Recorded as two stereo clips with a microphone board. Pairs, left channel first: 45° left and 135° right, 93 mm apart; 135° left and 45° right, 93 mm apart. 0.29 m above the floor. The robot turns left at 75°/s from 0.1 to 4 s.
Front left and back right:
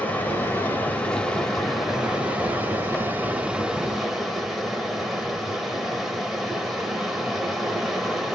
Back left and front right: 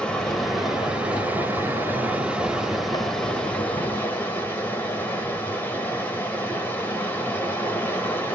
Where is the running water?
75° left, 1.0 m; by 8.4 s 140° left, 1.0 m.